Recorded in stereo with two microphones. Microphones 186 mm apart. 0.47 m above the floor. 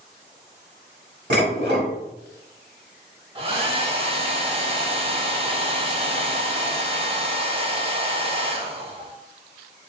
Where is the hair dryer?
30° right (ahead or behind), 0.5 m.